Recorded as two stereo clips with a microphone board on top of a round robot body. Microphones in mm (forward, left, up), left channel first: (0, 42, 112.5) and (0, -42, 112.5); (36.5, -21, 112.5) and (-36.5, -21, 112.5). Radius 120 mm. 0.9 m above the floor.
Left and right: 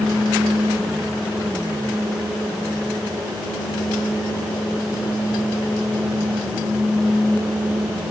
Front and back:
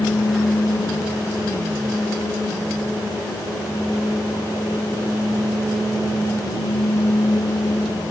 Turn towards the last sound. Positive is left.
No sound to turn to.